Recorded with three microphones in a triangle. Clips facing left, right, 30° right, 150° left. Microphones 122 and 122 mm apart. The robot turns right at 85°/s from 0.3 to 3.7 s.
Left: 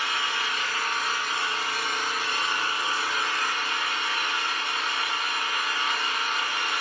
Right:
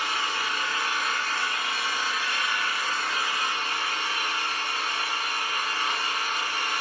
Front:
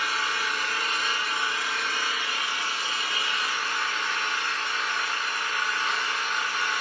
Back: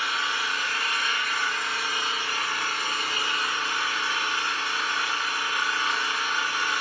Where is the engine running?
60° right, 1.7 m; by 6.8 s 130° right, 1.7 m.